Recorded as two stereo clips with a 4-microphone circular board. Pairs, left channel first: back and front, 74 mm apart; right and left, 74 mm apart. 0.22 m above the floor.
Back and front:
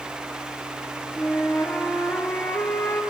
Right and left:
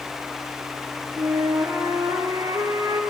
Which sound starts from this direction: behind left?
A flute, at 1.2 s.